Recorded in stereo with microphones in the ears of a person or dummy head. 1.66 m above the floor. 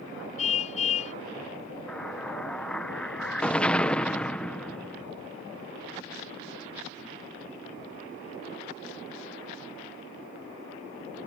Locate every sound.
0.4 s a car horn: 45° left (ahead or behind)
1.9 s an explosion: 5° left (ahead or behind)